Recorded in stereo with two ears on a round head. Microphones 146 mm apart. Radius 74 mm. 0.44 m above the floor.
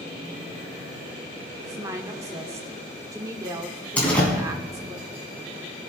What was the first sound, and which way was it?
A woman speaking, 20° right (ahead or behind).